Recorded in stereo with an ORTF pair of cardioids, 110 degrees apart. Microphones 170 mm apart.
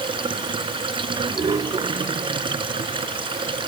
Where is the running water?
30° right.